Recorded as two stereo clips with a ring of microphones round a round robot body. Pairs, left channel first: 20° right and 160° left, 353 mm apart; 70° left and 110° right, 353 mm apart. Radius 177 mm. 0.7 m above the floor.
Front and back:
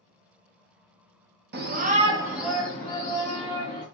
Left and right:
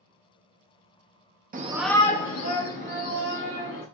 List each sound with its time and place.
1.5 s a shout: 160° right, 0.8 m; by 3.9 s 55° left, 2 m